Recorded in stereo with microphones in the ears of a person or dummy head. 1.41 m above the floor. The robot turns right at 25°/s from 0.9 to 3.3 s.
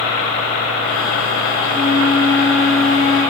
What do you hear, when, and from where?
1.6 s a flute: 100° right, 2 m; by 3.2 s 60° right, 2 m